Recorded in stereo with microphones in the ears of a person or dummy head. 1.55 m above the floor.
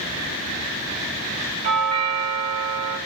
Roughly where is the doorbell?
Right.